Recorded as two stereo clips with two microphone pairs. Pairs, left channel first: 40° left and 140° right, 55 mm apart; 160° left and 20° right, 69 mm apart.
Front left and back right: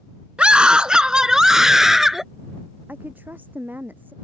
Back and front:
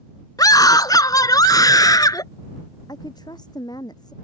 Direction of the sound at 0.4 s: 155° left.